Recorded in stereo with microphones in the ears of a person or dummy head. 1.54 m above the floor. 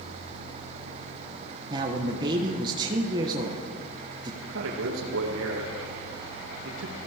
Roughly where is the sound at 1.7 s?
Right.